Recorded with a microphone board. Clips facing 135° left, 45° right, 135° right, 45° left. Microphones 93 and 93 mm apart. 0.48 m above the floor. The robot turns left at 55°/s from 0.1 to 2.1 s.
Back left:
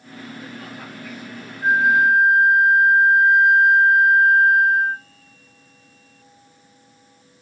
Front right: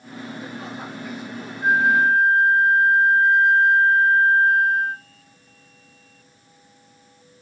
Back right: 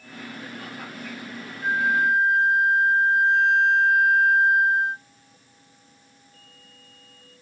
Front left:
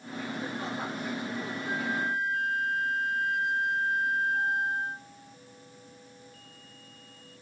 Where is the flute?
130° right, 0.5 m; by 5.0 s 155° right, 0.5 m.